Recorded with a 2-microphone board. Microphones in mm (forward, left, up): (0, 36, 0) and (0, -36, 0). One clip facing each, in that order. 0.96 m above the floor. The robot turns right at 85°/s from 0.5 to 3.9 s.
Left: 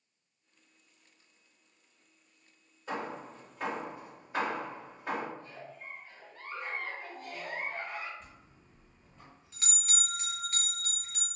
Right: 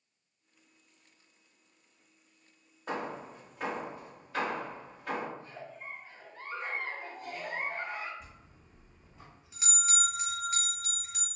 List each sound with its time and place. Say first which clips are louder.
2.9 s hammering: right 1 dB; 65° right (ahead or behind), 1.2 m; by 5.3 s 20° left (ahead or behind), 1.2 m
5.4 s a giggle: right 1 dB; 20° right (ahead or behind), 0.8 m
8.2 s a bell: right 1 dB; 10° right (ahead or behind), 0.8 m